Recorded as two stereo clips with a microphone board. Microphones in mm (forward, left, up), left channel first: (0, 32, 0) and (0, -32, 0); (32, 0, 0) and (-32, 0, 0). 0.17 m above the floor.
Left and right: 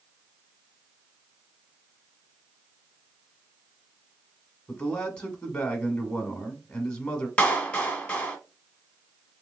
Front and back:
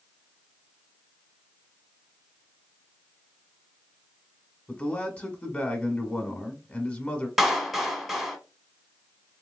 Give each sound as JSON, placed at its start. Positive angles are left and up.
{"t": 4.7, "sound": "a man speaking", "azimuth_deg": 35, "distance_m": 1.2}
{"t": 7.4, "sound": "a clap", "azimuth_deg": 100, "distance_m": 1.0}